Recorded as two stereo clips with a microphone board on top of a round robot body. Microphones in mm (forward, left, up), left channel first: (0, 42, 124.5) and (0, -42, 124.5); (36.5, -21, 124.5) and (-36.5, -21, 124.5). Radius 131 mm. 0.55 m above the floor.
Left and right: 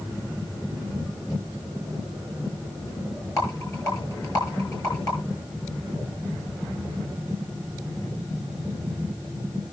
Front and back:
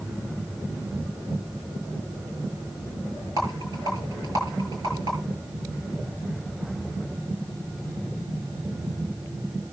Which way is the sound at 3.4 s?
140° left.